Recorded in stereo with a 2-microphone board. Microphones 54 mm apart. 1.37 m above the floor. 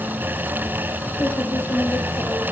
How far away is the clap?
No clap in this recording.